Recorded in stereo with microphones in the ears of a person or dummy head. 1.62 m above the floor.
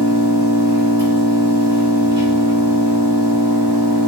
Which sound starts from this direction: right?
An engine running, at 0.0 s.